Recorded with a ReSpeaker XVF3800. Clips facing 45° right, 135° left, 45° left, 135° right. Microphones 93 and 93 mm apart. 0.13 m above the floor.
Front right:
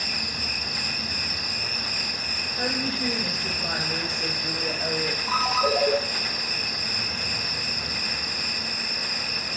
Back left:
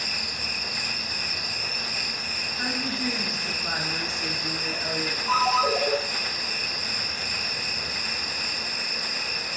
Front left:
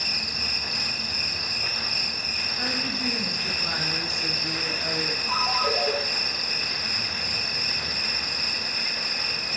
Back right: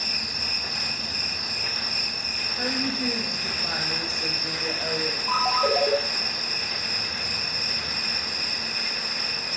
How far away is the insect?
About 3 m.